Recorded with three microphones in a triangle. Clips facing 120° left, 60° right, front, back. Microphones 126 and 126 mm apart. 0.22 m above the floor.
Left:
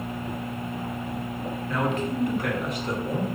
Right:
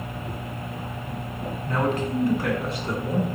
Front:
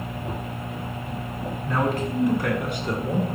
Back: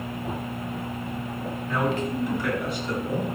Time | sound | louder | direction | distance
1.7 | a man speaking | right 2 dB, front 1 dB | 35° right | 1.9 m